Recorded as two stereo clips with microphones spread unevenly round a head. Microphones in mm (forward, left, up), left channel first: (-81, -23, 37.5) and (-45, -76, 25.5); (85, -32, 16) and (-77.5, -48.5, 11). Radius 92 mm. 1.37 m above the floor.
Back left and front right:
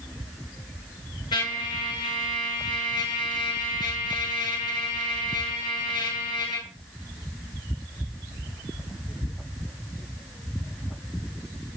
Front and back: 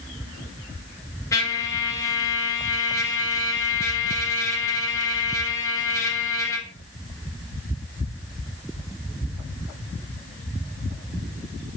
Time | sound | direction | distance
1.3 | a trumpet | 80° left | 2 m